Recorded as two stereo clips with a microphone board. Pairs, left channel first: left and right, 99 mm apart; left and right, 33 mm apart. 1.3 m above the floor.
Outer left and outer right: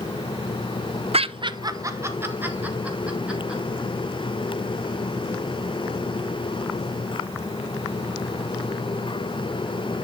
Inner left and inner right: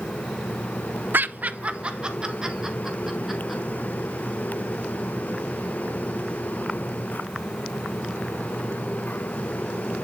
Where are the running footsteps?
I don't hear running footsteps.